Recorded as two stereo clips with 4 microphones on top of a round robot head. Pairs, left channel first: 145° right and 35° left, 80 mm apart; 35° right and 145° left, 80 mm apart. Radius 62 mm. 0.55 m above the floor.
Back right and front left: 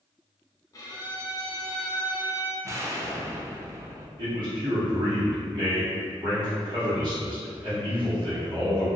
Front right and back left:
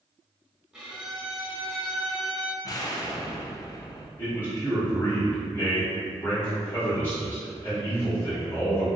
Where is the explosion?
10° right, 0.5 m.